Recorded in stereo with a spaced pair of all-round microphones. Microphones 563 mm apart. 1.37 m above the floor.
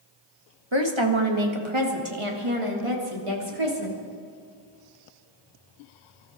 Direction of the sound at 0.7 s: 50° right (ahead or behind).